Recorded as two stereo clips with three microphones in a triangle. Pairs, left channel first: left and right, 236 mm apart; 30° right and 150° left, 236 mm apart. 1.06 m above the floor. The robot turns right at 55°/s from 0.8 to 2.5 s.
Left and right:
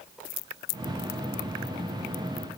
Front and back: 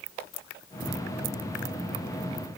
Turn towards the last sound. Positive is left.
No sound to turn to.